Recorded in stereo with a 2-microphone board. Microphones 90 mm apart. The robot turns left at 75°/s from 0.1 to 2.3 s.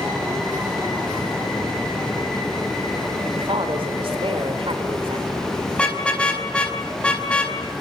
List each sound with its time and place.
3.3 s a woman speaking: 90° right, 4 m
5.7 s a car horn: 10° left (ahead or behind), 4.5 m